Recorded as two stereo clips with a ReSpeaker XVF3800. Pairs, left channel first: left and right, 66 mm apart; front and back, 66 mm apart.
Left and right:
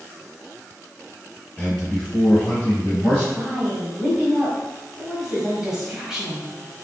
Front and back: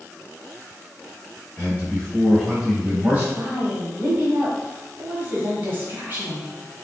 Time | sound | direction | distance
1.6 | a man speaking | 25° left | 1.5 m
3.4 | a woman speaking | 165° right | 1.2 m